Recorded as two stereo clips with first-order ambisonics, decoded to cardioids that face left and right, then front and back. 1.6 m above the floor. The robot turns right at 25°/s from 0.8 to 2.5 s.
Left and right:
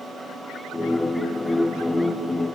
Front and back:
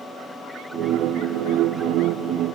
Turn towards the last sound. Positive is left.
No sound to turn to.